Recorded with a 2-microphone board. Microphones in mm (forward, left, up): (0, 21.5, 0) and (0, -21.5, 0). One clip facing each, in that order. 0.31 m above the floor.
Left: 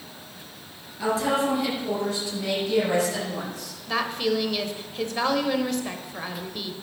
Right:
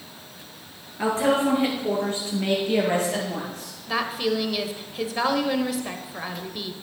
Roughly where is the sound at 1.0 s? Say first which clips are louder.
Right 2 dB; right.